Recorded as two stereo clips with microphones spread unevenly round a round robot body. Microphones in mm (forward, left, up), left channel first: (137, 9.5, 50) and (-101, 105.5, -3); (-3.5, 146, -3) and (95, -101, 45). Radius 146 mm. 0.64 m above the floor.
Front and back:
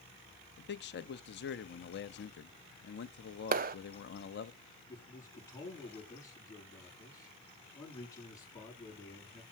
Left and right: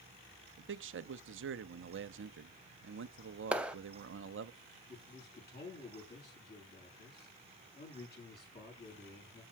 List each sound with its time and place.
0.6 s a man speaking: 55° right, 0.7 m
3.5 s a clap: 160° right, 0.5 m
4.9 s a man speaking: 60° left, 7.5 m